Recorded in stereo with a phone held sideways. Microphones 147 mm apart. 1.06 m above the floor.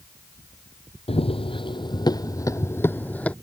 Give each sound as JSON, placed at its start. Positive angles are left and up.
{"t": 1.1, "sound": "running footsteps", "side_deg": 45}